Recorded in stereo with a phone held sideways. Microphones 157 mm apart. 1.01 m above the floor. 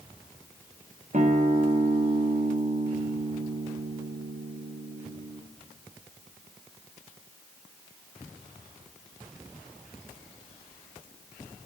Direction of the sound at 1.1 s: 55° right (ahead or behind).